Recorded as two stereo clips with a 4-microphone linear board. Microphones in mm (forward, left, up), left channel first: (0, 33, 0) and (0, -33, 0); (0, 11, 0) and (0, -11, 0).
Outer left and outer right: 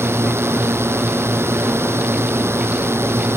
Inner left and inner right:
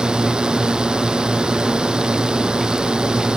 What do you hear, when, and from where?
0.0 s a drone: 40° right (ahead or behind)